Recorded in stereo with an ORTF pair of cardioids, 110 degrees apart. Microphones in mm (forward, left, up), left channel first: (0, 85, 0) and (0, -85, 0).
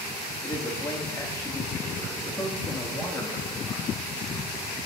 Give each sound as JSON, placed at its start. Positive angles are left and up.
{"t": 0.4, "sound": "a man speaking", "azimuth_deg": 15, "distance_m": 1.5}